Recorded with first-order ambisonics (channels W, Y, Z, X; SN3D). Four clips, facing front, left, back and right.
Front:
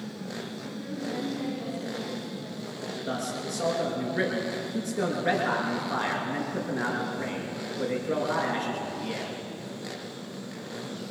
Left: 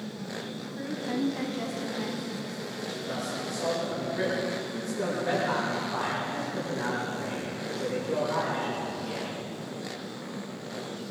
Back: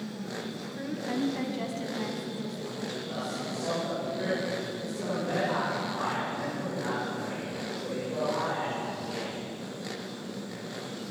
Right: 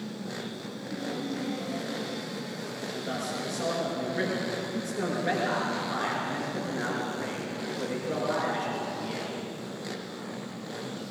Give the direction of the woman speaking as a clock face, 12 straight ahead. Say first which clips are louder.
Left 4 dB, back 1 dB; 7 o'clock.